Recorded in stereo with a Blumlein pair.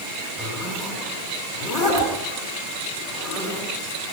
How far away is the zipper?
About 8.5 m.